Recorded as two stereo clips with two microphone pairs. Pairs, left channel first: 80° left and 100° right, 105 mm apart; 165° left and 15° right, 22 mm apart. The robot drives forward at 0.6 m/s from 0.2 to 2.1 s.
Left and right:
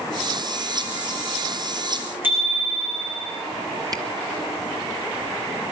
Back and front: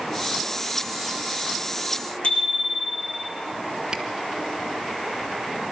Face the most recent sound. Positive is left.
turn(degrees=-65)